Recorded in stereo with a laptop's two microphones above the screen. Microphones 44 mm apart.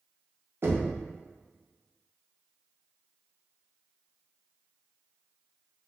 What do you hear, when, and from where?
0.6 s knocking: 60° right (ahead or behind), 0.8 m